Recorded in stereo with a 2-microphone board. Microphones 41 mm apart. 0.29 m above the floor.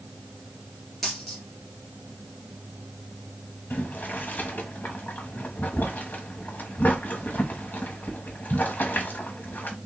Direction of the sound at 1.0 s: 5° left (ahead or behind).